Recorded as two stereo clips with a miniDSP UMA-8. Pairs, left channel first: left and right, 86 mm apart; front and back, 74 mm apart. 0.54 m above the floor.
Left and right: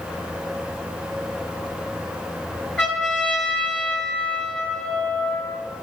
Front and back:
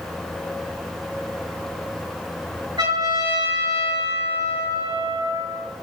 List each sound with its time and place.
2.8 s a trumpet: straight behind, 7 m